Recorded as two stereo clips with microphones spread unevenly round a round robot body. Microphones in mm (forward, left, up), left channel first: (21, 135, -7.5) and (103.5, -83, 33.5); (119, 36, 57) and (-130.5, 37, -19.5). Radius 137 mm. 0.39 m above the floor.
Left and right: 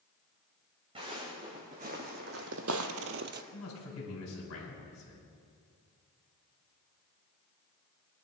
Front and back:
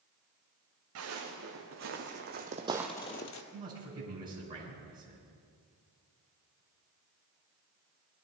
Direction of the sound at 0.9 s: 140° right.